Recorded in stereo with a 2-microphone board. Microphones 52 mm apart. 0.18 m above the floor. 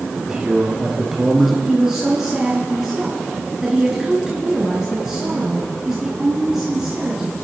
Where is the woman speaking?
10° right (ahead or behind), 2.5 m.